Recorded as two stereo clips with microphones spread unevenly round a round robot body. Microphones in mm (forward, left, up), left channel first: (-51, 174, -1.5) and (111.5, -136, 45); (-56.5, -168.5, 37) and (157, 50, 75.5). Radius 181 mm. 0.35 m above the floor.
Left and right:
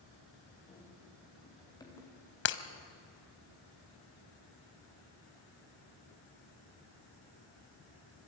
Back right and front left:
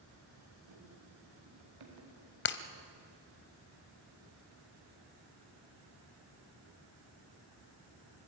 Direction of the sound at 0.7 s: 45° left.